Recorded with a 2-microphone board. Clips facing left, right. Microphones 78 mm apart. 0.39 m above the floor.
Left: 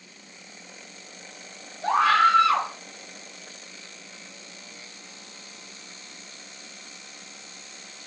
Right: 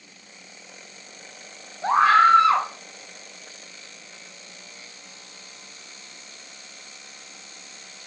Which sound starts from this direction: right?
A scream, at 1.8 s.